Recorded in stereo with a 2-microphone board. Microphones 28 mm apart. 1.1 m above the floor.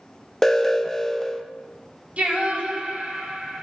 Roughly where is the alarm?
Centre.